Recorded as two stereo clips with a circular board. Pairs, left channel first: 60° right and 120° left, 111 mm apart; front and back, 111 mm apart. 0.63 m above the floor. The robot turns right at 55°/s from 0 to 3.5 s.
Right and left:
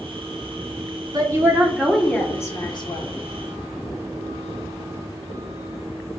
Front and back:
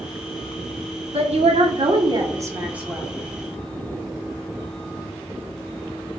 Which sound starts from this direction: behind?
A woman speaking, at 1.1 s.